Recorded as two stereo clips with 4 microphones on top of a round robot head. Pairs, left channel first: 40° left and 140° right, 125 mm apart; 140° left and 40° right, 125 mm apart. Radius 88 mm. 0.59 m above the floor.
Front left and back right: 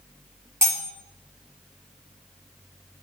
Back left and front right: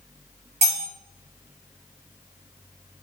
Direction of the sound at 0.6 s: 70° right.